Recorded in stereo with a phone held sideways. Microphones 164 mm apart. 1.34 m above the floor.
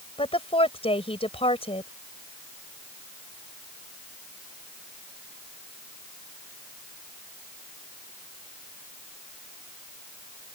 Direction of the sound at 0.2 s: 35° left (ahead or behind).